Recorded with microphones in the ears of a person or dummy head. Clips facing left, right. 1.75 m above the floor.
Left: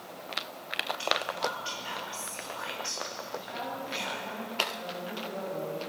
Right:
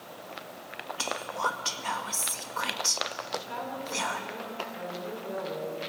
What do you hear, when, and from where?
1.0 s whispering: 70° right (ahead or behind), 2 m
3.3 s a woman speaking: 80° right, 6.5 m